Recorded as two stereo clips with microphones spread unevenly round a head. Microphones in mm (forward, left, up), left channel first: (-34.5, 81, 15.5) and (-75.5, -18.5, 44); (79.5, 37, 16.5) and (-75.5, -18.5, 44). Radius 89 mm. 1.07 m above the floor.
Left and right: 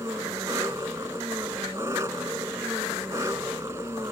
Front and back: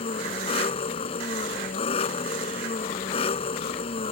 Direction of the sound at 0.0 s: 40° right.